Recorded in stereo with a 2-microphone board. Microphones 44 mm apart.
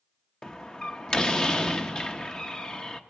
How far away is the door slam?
About 0.9 m.